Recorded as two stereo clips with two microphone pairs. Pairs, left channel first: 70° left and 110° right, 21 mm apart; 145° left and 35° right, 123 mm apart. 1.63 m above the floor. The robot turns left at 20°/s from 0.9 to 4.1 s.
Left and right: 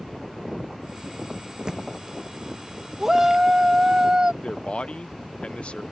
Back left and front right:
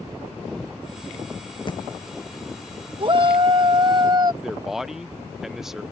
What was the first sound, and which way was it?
A thud, 165° right.